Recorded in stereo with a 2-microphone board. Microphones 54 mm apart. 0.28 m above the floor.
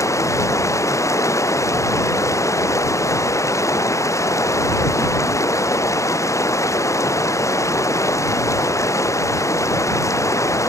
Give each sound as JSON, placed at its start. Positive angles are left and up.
{"t": 0.0, "sound": "running water", "side_deg": 75}